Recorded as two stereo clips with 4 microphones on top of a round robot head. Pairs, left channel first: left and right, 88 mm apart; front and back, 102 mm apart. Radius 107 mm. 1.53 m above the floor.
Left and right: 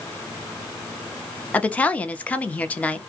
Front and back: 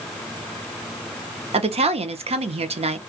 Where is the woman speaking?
165° left, 0.7 m.